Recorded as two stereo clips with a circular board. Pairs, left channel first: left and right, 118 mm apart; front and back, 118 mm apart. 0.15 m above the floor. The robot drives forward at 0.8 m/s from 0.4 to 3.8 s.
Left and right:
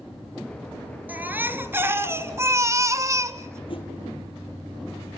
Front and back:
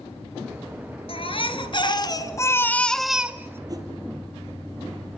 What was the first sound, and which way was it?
A baby crying, 15° right.